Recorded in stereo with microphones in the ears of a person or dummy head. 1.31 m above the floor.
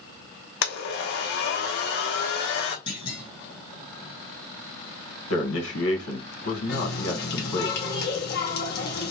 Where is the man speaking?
75° left (ahead or behind), 1.6 m.